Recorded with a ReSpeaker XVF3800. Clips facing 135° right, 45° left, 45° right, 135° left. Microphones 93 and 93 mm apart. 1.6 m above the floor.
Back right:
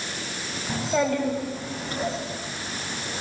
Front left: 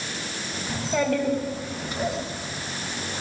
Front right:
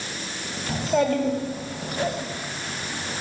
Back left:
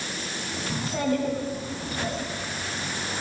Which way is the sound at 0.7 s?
50° right.